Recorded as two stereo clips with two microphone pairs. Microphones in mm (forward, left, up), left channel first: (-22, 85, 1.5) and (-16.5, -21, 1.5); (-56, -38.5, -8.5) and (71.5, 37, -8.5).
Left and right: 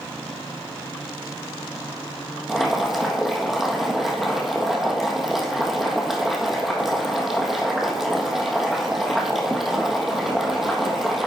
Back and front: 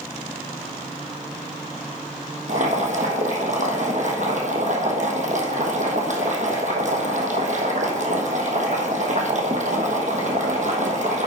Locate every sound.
2.5 s boiling: straight ahead, 1.3 m